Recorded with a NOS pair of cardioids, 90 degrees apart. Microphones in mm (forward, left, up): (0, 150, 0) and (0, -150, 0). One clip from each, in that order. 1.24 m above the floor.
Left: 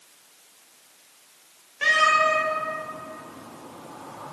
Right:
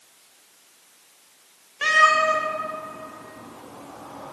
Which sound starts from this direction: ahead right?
A cat meowing, at 1.8 s.